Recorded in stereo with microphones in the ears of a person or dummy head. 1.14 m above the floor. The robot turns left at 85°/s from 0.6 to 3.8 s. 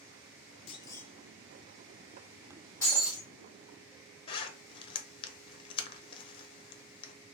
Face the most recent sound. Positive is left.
turn(degrees=30)  # may be behind; listen again after turning